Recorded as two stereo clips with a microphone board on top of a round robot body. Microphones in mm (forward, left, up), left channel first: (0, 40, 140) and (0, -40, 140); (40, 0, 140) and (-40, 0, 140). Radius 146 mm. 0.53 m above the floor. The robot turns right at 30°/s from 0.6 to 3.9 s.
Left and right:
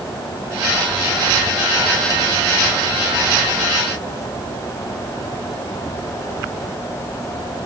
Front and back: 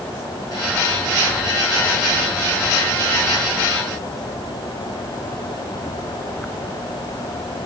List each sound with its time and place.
Only background noise.